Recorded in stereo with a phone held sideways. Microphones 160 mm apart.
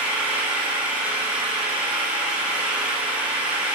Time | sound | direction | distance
0.0 | an engine running | 10° right (ahead or behind) | 3 m